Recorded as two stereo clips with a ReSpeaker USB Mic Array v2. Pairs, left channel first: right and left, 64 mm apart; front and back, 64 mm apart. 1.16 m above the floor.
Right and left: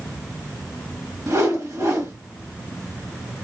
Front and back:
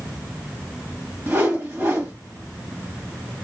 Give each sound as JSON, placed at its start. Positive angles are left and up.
{"t": 1.3, "sound": "a whoosh", "azimuth_deg": 120, "distance_m": 1.2}